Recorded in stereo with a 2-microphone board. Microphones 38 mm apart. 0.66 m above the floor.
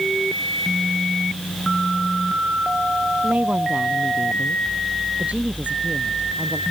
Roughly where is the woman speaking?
Right.